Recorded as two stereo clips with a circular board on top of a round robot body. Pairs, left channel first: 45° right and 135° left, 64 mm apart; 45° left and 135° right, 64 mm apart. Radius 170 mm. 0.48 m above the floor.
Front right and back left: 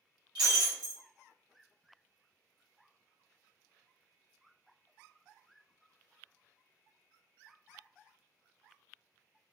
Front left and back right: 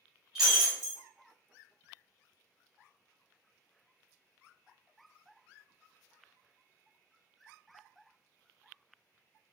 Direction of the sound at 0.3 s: 140° left.